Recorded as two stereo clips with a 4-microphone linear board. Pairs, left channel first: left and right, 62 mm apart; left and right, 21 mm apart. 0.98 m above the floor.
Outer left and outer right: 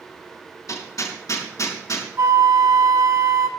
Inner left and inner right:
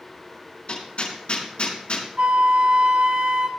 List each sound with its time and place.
0.7 s hammering: 60° left (ahead or behind), 5.5 m
2.2 s a flute: 65° right (ahead or behind), 1.7 m